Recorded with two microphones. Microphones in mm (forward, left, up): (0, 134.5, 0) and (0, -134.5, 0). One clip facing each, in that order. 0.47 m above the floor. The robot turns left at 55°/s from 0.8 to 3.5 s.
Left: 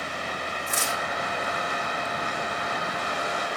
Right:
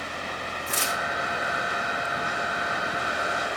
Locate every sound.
0.7 s tearing paper: 65° right (ahead or behind), 6 m; by 1.0 s 75° right (ahead or behind), 6 m